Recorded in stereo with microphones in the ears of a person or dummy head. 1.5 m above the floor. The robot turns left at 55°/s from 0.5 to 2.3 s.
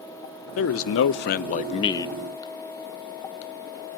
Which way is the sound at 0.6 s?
100° left.